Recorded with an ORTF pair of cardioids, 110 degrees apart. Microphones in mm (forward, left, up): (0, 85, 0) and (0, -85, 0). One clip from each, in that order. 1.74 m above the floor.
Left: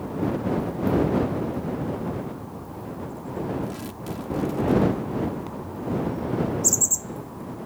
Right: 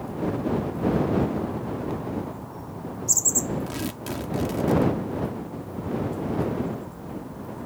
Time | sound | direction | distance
3.7 | tearing paper | 50° right | ?